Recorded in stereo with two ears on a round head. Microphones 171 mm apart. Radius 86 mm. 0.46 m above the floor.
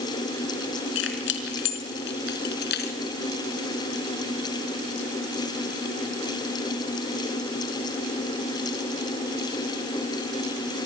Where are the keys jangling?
70° left (ahead or behind), 4.5 m; by 3.0 s 60° left (ahead or behind), 4.5 m.